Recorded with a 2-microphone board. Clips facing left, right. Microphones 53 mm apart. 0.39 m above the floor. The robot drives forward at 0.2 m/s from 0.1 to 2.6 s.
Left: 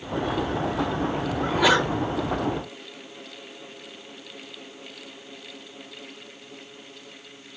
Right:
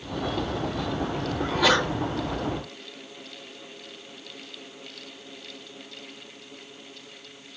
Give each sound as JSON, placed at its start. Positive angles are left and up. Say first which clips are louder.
{"t": 1.4, "sound": "a sneeze", "louder": "left 2 dB", "side_deg": 15, "distance_m": 1.1}